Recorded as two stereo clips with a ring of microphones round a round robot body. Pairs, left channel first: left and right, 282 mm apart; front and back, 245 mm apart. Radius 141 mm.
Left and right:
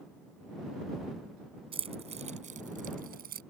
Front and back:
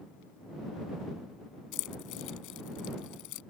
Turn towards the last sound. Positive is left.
turn(degrees=-30)